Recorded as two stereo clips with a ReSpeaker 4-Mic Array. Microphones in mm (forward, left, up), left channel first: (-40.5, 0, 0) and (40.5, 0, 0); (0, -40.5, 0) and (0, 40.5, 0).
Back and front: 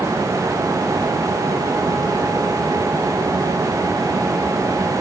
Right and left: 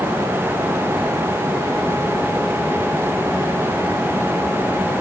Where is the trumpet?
I don't hear a trumpet.